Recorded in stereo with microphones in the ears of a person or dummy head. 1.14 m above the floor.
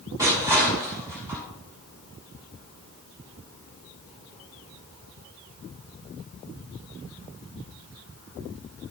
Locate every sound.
0.2 s crushing: 15° right (ahead or behind), 7 m